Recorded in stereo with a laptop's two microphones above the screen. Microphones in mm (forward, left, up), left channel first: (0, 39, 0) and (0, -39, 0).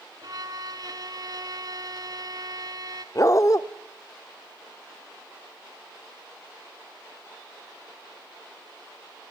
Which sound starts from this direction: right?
A violin, at 0.2 s.